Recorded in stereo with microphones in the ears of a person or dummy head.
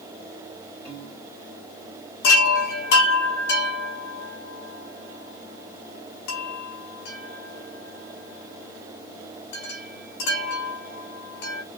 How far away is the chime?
About 1.7 m.